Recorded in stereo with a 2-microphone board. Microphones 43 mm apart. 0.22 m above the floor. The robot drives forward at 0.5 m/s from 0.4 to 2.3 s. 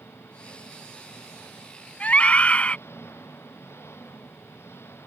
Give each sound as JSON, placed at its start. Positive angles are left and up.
{"t": 0.0, "sound": "an engine running", "side_deg": 75}
{"t": 2.0, "sound": "a scream", "side_deg": 35}